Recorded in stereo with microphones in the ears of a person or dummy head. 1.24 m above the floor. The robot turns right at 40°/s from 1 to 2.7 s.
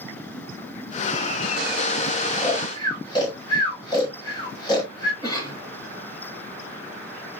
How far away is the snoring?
About 5.5 m.